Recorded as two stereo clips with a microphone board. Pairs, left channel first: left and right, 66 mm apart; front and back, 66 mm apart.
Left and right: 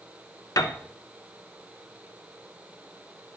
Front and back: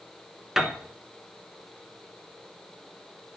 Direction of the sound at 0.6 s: 95° left.